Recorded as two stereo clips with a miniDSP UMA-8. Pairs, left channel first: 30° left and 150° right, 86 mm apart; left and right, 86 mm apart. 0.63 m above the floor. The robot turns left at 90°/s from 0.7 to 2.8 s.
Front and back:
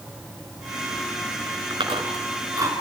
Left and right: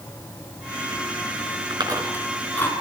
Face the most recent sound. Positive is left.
turn(degrees=140)